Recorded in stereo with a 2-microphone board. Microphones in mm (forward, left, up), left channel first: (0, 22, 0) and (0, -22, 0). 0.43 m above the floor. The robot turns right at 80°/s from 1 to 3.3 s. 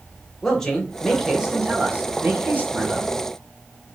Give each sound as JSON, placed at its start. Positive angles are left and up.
{"t": 0.4, "sound": "a man speaking", "azimuth_deg": 160, "distance_m": 1.5}